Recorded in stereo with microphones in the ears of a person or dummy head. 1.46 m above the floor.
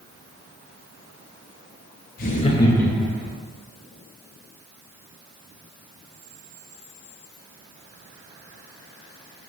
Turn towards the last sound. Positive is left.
turn(degrees=-15)  # may be behind; listen again after turning